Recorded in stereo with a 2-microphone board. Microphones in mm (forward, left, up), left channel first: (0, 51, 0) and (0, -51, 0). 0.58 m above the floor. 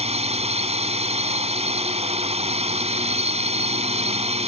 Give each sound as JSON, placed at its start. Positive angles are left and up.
{"t": 0.0, "sound": "a drone", "side_deg": -75}